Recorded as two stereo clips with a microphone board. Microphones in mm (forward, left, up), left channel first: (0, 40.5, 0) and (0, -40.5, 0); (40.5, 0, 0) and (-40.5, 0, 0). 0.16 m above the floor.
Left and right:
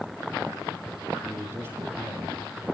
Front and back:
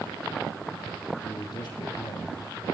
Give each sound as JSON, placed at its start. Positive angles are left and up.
{"t": 1.2, "sound": "a man speaking", "azimuth_deg": -35, "distance_m": 5.5}